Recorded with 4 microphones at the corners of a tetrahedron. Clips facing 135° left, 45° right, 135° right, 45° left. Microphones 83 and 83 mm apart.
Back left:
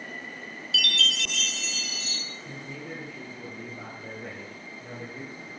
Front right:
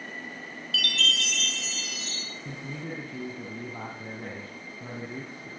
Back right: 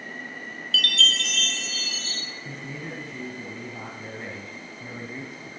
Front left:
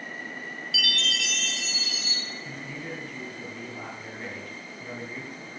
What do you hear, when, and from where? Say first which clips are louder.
0.7 s a chime: even, back right 4 dB; 30° right, 3 m
2.5 s a man speaking: front right 3 dB, back right 2 dB; 55° right, 4.5 m